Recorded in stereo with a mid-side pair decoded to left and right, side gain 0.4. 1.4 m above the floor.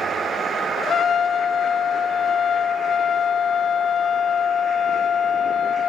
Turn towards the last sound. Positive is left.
turn(degrees=55)